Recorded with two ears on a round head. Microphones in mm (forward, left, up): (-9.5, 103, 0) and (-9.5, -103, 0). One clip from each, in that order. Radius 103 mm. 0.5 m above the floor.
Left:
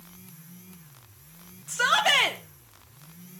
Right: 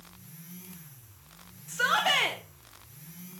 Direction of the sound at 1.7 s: 20° left (ahead or behind).